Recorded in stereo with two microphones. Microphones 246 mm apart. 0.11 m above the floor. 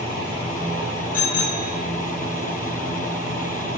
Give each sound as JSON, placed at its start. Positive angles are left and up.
{"t": 1.1, "sound": "a bicycle bell", "side_deg": 65, "distance_m": 7.5}